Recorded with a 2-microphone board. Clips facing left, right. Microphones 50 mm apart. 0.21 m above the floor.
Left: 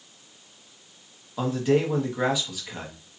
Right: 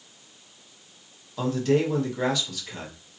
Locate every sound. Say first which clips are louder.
1.4 s a man speaking: even; 15° left (ahead or behind), 1.3 m